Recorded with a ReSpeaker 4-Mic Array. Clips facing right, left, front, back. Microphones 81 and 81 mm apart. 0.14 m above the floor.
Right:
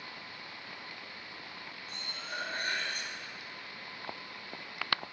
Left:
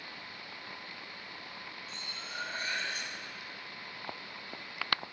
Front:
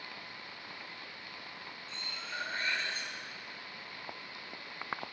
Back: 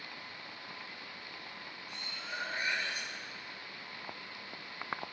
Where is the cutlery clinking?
105° right, 1.4 m.